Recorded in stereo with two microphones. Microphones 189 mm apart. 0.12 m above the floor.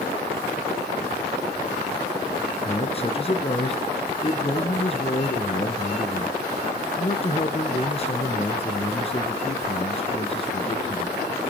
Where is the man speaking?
35° left (ahead or behind), 1.8 m.